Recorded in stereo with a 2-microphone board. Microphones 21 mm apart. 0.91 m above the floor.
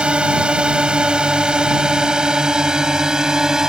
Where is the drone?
55° right (ahead or behind); by 3.7 s 30° right (ahead or behind).